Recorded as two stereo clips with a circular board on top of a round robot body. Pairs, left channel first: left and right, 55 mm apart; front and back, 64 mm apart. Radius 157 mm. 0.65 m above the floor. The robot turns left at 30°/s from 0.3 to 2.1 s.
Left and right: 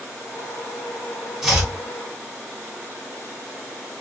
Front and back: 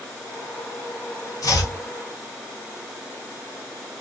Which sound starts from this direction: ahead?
Chopping, at 1.4 s.